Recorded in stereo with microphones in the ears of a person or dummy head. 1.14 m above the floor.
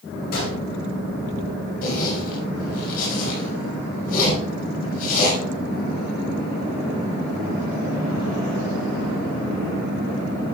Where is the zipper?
55° left (ahead or behind), 5 m.